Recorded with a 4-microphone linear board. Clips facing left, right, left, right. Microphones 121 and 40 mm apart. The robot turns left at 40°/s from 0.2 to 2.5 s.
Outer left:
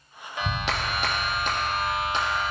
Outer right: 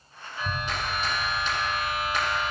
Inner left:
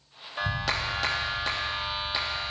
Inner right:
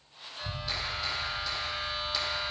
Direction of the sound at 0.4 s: 95° left.